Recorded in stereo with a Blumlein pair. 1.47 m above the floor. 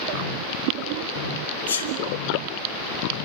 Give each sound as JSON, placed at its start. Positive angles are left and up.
{"t": 1.7, "sound": "a sneeze", "azimuth_deg": 65, "distance_m": 3.5}